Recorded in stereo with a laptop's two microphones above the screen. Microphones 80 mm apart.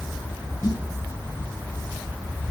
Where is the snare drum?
60° left (ahead or behind), 6 m.